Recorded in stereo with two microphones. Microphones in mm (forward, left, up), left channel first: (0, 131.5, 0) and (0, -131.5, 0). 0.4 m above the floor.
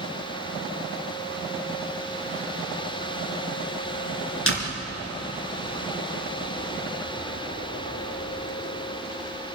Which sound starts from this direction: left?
A door slam, at 4.5 s.